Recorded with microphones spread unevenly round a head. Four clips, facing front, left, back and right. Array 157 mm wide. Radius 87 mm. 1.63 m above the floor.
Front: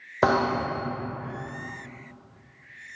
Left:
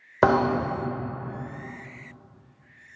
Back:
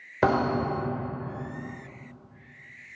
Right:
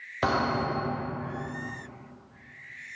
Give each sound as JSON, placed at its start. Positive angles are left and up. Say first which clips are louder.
{"t": 0.2, "sound": "a thud", "louder": "left 6 dB, front 1 dB", "azimuth_deg": 90, "distance_m": 3.0}